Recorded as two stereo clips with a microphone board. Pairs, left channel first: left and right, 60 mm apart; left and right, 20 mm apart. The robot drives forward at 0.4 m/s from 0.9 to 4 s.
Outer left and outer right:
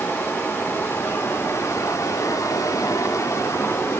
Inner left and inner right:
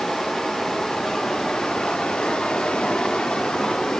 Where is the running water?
35° left (ahead or behind), 0.9 m; by 4.0 s 40° left (ahead or behind), 0.8 m.